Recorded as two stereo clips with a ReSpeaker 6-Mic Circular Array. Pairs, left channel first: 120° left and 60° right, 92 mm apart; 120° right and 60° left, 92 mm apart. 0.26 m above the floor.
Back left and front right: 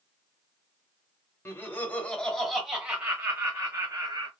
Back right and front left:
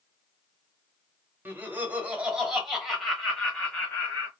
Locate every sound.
1.4 s laughter: 100° left, 1.2 m; by 4.3 s 50° right, 1.4 m